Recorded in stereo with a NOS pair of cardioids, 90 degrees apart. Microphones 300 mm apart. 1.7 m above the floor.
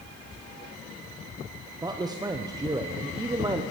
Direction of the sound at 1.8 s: 15° right.